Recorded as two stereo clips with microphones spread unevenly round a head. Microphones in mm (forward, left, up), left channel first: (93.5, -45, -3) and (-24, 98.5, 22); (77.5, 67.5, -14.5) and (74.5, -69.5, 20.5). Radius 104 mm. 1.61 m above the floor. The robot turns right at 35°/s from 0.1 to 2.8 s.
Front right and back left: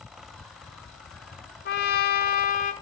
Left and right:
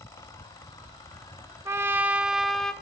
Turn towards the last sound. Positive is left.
turn(degrees=-10)